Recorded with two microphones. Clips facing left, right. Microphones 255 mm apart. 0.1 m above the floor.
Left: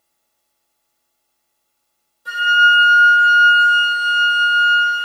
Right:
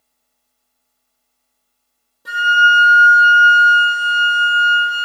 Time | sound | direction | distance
2.2 | a flute | 70° right (ahead or behind) | 1.6 m